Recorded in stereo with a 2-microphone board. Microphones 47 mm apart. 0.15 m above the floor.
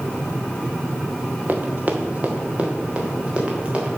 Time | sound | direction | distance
1.5 | running footsteps | 40° right (ahead or behind) | 1.4 m